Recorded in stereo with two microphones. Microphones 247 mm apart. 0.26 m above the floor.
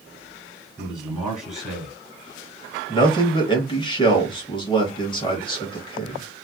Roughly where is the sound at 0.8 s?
Centre.